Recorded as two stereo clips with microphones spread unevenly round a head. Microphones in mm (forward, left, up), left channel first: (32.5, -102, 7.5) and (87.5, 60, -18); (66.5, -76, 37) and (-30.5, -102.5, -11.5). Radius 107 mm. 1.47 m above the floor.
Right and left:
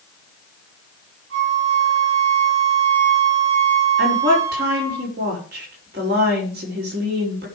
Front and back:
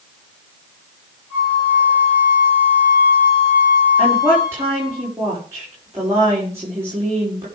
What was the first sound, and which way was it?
A flute, 105° left.